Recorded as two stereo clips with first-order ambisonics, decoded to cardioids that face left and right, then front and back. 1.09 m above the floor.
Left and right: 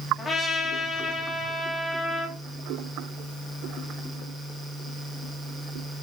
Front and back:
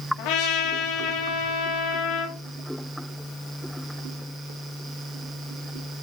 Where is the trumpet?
5° left, 2 m.